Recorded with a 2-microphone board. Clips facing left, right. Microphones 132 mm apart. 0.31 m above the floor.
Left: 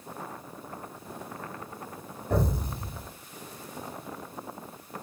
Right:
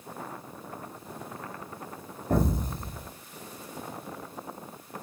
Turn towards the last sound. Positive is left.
turn(degrees=-45)  # may be behind; listen again after turning